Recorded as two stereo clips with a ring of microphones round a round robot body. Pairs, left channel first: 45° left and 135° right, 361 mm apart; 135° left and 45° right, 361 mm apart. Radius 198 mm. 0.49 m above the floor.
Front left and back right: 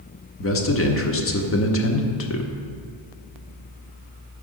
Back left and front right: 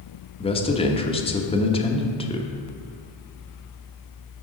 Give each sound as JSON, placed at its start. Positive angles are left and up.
{"t": 0.4, "sound": "a man speaking", "azimuth_deg": 70, "distance_m": 1.1}